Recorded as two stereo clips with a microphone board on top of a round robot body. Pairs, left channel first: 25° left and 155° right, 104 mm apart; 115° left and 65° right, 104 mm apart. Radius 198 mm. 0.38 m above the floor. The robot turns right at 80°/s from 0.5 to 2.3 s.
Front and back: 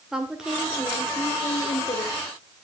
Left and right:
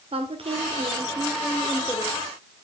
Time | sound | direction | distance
0.1 | a woman speaking | 75° right | 1.7 m